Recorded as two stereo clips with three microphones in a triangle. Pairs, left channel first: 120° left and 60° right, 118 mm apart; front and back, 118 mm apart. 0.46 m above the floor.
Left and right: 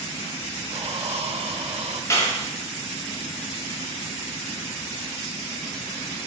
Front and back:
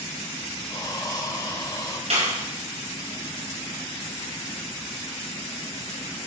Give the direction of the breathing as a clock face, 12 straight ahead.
2 o'clock.